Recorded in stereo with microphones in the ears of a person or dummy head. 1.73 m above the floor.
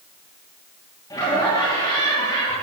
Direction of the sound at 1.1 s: 15° left (ahead or behind).